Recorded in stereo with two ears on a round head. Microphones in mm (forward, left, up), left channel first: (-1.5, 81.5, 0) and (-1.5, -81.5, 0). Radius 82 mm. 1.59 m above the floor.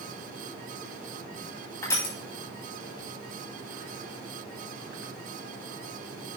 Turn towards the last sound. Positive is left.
turn(degrees=15)  # may be behind; listen again after turning